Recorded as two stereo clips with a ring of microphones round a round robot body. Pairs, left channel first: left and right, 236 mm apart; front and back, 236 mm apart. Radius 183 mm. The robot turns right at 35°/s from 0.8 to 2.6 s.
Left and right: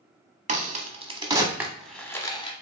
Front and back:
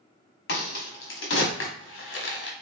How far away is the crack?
About 1.0 m.